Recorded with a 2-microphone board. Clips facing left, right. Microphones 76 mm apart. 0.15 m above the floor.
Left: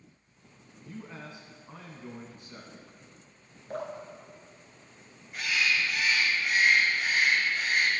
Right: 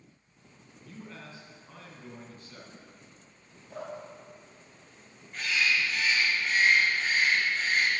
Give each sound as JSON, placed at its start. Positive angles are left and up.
{"t": 0.8, "sound": "a man speaking", "side_deg": 20, "distance_m": 1.2}
{"t": 3.7, "sound": "dripping", "side_deg": 55, "distance_m": 2.0}
{"t": 5.3, "sound": "a bird", "side_deg": 10, "distance_m": 1.8}